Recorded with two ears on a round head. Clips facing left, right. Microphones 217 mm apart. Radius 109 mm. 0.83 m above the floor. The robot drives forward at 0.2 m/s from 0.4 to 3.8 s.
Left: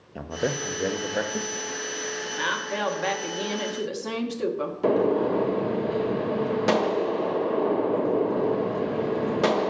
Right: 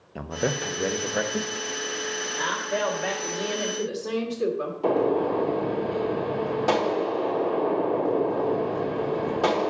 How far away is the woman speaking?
About 1.2 m.